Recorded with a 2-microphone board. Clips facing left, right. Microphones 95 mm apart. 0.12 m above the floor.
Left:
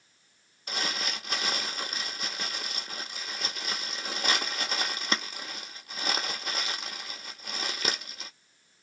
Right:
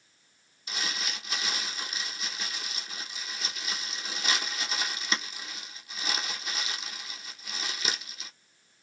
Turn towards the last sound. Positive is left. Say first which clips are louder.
# left 3 dB
turn(degrees=50)  # may be behind; listen again after turning